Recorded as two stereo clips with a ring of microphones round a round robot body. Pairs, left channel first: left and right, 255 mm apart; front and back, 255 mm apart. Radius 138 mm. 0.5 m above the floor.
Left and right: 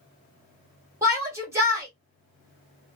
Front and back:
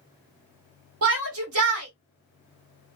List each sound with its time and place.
1.0 s a shout: 170° right, 1.5 m